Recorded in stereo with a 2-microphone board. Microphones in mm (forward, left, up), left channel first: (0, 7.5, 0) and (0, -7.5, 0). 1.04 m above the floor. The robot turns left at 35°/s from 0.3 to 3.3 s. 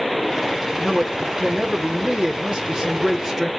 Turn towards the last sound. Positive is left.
turn(degrees=-150)